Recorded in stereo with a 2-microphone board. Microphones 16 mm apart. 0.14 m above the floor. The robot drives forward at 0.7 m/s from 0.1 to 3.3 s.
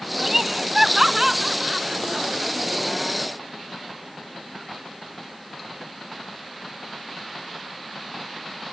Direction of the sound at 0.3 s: 20° right (ahead or behind).